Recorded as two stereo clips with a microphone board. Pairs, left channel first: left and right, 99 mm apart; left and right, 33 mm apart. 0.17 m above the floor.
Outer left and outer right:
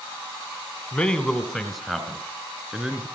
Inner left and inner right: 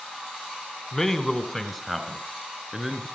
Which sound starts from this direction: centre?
A man speaking, at 0.9 s.